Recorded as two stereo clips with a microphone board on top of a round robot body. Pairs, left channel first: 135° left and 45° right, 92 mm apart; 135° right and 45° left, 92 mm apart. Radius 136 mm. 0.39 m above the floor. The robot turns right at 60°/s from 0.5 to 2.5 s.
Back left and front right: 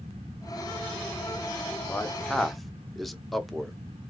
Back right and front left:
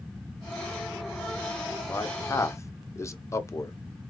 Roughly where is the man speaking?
Behind.